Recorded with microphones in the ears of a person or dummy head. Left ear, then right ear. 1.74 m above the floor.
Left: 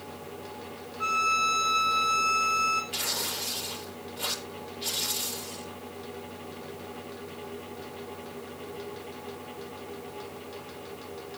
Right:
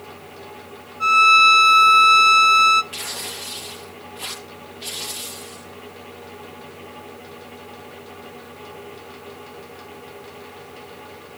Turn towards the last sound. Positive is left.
turn(degrees=-20)  # may be behind; listen again after turning